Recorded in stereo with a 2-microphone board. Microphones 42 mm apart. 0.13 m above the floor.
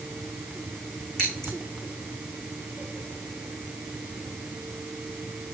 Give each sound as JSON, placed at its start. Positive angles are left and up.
{"t": 1.2, "sound": "scissors", "side_deg": 15, "distance_m": 6.5}